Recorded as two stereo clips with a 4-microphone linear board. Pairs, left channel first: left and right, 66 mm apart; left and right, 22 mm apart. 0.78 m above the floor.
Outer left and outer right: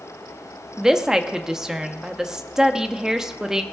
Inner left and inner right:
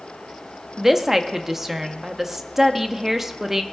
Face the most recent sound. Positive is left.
turn(degrees=-10)  # may be behind; listen again after turning